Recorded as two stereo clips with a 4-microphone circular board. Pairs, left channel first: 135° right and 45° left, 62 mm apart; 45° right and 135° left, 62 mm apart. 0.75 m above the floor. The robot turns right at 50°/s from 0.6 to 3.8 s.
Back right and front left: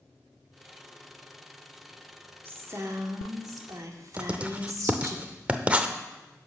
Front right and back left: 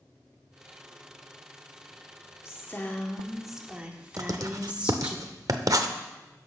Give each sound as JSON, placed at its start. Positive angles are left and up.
{"t": 2.5, "sound": "a woman speaking", "azimuth_deg": -5, "distance_m": 1.7}
{"t": 4.2, "sound": "writing", "azimuth_deg": 110, "distance_m": 0.7}